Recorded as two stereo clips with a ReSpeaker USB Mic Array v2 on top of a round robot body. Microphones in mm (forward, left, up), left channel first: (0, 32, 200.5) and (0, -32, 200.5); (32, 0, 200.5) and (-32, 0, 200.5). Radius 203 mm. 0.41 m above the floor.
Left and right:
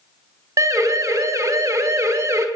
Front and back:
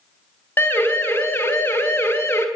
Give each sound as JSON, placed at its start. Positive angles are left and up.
{"t": 0.6, "sound": "a siren", "azimuth_deg": -55, "distance_m": 4.0}